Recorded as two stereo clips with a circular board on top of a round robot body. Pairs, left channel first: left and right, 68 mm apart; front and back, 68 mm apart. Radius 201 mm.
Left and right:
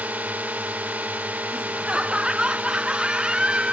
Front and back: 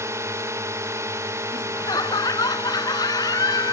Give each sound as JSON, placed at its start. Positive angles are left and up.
{"t": 0.0, "sound": "a drone", "azimuth_deg": -150}
{"t": 1.5, "sound": "laughter", "azimuth_deg": -15}